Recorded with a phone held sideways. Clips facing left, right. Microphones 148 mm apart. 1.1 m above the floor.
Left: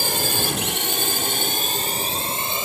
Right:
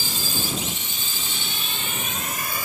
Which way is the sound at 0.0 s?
65° left (ahead or behind).